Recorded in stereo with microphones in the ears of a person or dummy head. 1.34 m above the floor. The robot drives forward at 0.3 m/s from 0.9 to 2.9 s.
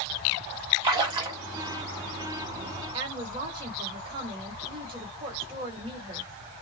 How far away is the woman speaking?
About 1.3 m.